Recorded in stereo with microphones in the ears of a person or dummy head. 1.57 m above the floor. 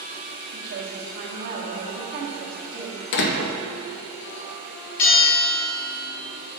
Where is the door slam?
60° left (ahead or behind), 0.6 m.